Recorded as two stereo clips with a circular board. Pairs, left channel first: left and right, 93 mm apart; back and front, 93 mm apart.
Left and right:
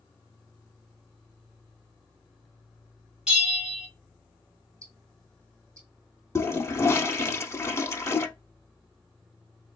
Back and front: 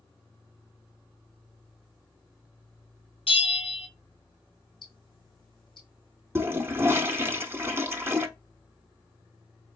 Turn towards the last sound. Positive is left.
turn(degrees=50)